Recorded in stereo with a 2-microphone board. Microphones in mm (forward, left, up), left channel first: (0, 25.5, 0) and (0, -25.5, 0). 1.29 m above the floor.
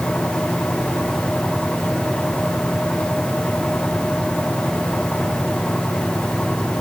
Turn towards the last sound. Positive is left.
No sound to turn to.